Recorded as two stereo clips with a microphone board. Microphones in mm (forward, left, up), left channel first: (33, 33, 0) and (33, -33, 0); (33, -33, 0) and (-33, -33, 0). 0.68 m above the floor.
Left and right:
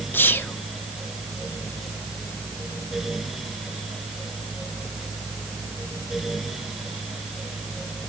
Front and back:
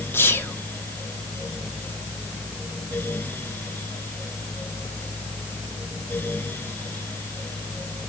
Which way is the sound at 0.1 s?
40° left.